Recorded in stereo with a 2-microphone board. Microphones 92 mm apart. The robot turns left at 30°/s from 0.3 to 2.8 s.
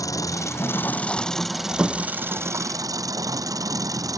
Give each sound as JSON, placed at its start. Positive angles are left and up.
{"t": 0.0, "sound": "an engine running", "azimuth_deg": 35}